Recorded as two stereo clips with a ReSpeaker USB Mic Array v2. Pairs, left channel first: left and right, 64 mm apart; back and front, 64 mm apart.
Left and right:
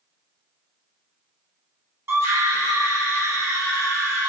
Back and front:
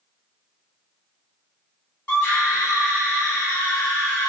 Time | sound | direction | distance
2.1 | a scream | 120° right | 1.7 m